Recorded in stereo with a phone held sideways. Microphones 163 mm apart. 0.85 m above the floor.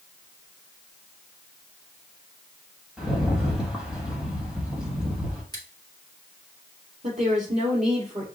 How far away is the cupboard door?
I don't hear a cupboard door.